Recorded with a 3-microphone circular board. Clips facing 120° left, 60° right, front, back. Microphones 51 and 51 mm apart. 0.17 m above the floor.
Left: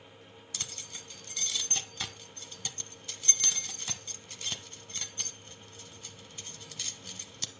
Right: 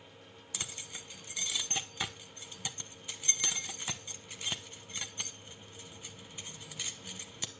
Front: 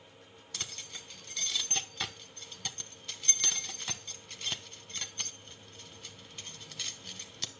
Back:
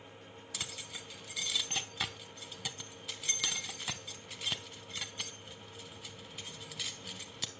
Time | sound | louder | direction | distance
0.5 | keys jangling | right 1 dB, even | 110° right | 0.8 m